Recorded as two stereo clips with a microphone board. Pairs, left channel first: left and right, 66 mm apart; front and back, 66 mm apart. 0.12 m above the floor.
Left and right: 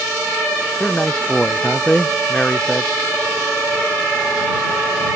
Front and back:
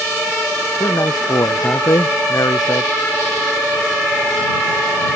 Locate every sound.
0.8 s a man speaking: 10° left